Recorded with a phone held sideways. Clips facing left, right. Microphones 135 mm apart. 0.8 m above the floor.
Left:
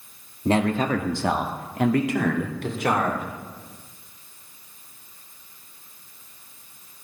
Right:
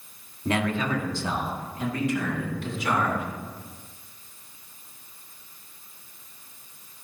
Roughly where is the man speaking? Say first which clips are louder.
Left 5 dB; left.